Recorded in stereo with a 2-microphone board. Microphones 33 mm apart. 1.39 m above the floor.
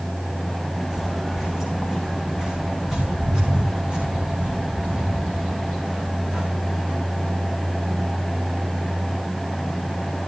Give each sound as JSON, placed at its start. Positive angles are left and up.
{"t": 0.9, "sound": "footsteps", "side_deg": -10, "distance_m": 7.0}